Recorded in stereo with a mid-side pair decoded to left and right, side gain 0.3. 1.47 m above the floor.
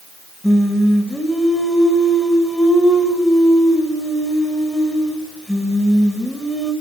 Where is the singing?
5° left, 7.5 m.